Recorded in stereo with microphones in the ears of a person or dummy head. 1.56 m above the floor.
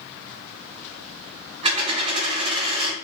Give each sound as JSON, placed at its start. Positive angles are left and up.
{"t": 1.6, "sound": "a dropped coin", "side_deg": -40, "distance_m": 2.5}